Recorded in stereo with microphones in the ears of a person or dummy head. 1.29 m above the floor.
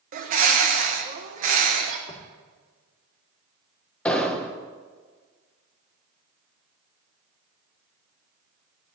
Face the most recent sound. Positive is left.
turn(degrees=10)  # may be behind; listen again after turning